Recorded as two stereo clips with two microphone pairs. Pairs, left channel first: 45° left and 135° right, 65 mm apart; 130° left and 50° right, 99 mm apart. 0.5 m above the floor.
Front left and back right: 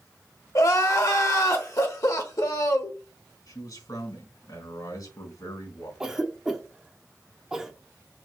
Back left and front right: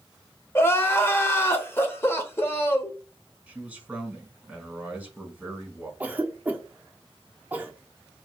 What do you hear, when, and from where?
0.6 s crying: 65° left, 1.3 m
3.5 s a man speaking: 25° left, 4 m
6.0 s a cough: 70° right, 1.1 m